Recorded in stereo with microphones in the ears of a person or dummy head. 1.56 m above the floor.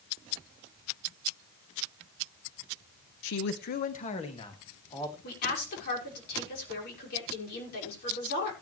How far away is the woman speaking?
About 5.5 m.